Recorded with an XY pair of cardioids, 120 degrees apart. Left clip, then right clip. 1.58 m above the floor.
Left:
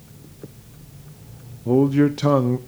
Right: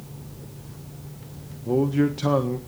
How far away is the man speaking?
About 0.7 m.